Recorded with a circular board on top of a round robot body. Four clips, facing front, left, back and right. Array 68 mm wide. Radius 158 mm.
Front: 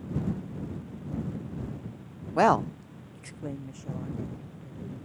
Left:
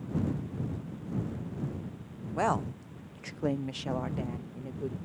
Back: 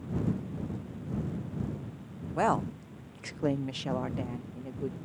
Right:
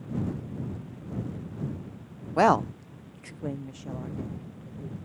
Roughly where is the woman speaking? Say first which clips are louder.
Right 8 dB, front 6 dB; ahead right.